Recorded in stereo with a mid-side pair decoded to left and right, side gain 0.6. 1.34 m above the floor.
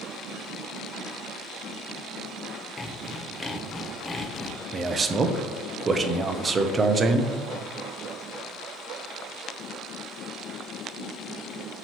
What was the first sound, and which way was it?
Sawing, 25° left.